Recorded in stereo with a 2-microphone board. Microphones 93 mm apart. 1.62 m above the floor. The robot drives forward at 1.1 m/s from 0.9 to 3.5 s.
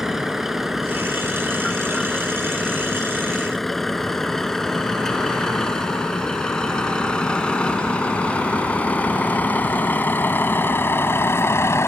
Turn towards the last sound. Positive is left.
turn(degrees=30)  # may be behind; listen again after turning